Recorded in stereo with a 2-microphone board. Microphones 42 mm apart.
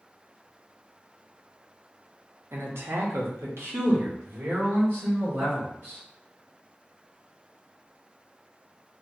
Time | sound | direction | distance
2.5 | a man speaking | 65° right (ahead or behind) | 0.7 m